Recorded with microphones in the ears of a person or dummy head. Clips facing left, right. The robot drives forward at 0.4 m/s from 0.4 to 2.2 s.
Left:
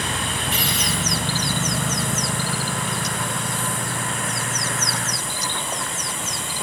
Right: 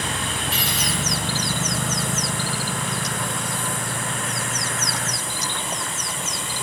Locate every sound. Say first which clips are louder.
0.5 s a dropped coin: left 1 dB; 35° right (ahead or behind), 4.5 m